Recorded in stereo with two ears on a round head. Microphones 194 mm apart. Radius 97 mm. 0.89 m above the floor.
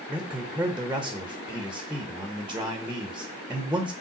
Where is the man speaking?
5° right (ahead or behind), 1.1 m.